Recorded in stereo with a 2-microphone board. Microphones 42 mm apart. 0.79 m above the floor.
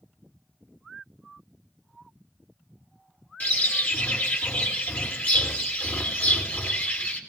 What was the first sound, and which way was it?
A bird, 45° left (ahead or behind).